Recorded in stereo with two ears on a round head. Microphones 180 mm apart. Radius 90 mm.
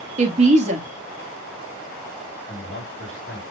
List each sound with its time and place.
0.2 s a woman speaking: 35° right (ahead or behind), 0.9 m
2.5 s a man speaking: 55° left (ahead or behind), 2.5 m